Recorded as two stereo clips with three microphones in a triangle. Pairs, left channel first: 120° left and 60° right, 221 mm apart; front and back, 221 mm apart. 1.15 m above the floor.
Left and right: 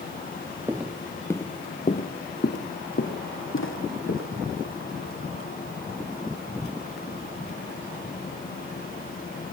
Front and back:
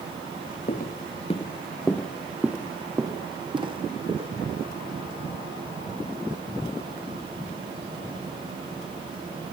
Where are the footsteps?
15° left, 1.5 m; by 5.9 s 125° left, 5 m.